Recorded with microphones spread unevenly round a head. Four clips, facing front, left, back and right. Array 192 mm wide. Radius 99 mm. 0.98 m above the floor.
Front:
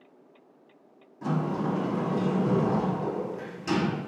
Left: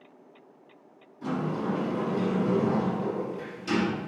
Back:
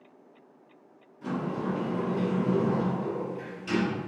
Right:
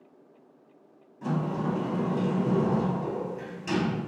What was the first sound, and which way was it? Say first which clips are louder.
A sliding door: even, front 3 dB; 20° right.